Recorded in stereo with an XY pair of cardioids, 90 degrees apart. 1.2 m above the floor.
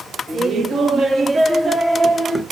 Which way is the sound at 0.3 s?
60° right.